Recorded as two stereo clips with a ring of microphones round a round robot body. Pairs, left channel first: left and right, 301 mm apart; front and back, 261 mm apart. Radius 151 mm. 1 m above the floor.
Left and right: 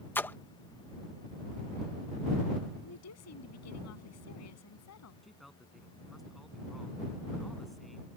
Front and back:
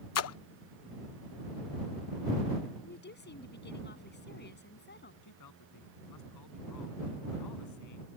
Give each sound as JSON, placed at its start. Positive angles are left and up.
{"t": 0.1, "sound": "a splash", "azimuth_deg": 5}
{"t": 2.8, "sound": "a woman speaking", "azimuth_deg": 50}
{"t": 5.2, "sound": "a man speaking", "azimuth_deg": 0}